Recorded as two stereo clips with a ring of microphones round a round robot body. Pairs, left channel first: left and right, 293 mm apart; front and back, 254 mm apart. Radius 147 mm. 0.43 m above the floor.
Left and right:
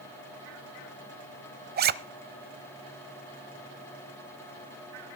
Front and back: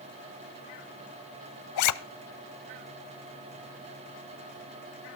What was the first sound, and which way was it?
A zipper, 30° right.